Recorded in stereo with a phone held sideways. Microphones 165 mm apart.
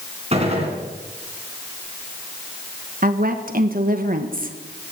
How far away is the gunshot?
About 3.5 m.